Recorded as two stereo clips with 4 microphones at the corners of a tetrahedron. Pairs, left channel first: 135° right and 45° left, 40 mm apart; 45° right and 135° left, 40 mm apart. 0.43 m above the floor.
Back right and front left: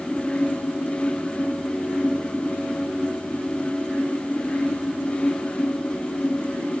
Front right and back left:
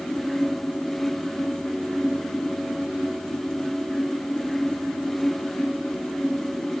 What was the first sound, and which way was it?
Only background noise.